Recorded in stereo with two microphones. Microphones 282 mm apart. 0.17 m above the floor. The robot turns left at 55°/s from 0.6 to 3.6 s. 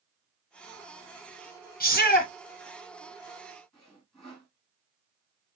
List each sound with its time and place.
1.8 s a shout: 30° left (ahead or behind), 1.1 m
3.7 s sawing: centre (ahead or behind), 1.7 m